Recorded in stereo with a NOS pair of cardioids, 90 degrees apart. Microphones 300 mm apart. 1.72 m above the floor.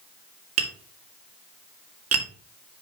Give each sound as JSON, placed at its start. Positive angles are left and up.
{"t": 0.6, "sound": "tapping", "azimuth_deg": -50, "distance_m": 2.5}